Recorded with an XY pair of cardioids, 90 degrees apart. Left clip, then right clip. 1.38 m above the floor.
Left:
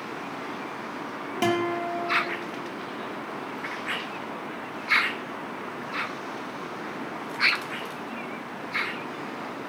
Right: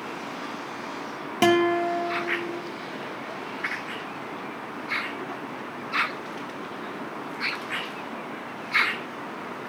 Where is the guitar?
45° right, 2 m.